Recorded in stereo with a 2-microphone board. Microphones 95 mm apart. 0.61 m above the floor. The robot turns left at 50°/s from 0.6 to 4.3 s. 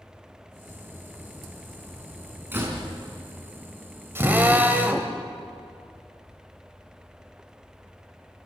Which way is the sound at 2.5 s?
20° right (ahead or behind).